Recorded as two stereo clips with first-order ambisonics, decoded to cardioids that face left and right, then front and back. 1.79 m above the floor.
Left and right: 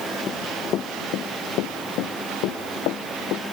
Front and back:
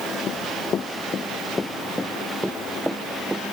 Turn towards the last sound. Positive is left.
turn(degrees=100)